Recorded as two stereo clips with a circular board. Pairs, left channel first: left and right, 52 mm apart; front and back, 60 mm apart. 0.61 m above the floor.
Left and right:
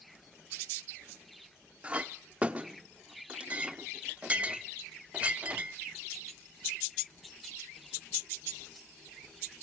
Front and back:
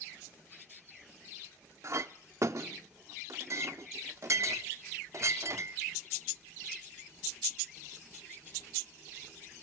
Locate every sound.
1.8 s a clink: 155° right, 0.6 m